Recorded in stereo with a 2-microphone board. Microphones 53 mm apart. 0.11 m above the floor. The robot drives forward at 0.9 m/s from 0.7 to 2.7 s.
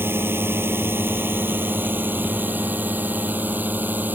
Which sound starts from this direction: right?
A drone, at 0.0 s.